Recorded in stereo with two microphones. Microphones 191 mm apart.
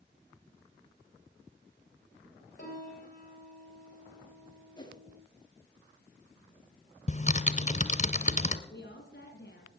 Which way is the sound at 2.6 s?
45° left (ahead or behind).